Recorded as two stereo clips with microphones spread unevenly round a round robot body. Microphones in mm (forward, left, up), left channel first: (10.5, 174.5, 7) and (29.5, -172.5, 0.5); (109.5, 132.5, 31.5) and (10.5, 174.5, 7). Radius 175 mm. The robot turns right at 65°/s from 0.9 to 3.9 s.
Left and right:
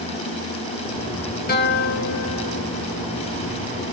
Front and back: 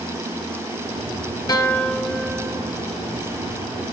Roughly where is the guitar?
Ahead left.